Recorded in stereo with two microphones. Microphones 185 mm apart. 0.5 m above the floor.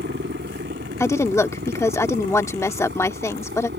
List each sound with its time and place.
0.0 s a helicopter: 70° right (ahead or behind); by 3.8 s 75° right (ahead or behind)
1.0 s a woman speaking: 15° left (ahead or behind)